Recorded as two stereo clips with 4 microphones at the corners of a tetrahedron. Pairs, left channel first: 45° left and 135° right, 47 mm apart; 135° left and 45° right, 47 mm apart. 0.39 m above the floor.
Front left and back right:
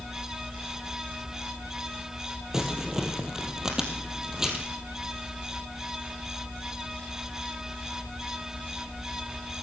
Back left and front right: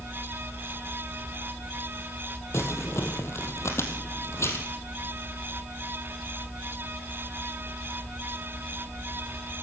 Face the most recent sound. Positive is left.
turn(degrees=150)